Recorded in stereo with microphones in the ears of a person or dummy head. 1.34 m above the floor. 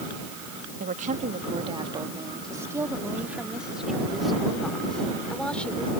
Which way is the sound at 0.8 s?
40° right (ahead or behind).